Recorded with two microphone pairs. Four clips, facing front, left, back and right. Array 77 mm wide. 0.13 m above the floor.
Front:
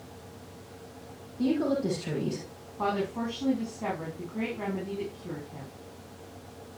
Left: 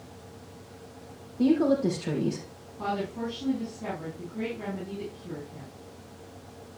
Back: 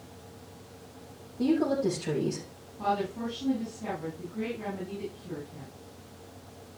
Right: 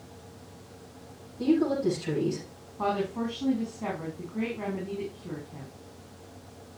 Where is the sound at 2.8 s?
30° right, 5 m.